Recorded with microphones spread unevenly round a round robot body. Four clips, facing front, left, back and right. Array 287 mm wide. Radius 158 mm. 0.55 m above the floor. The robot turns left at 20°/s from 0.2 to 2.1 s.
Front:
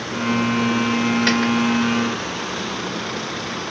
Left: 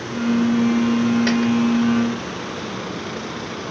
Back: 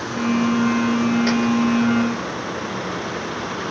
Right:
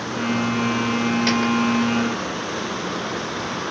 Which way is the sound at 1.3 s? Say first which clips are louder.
Left 2 dB, even; 85° left.